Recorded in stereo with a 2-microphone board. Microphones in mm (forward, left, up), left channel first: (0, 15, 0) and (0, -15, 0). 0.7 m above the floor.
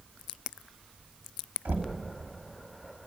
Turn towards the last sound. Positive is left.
turn(degrees=-75)  # may be behind; listen again after turning